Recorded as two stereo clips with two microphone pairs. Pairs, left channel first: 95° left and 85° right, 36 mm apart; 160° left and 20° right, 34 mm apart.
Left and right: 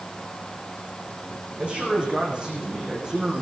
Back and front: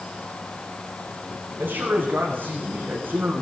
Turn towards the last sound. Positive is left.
turn(degrees=-15)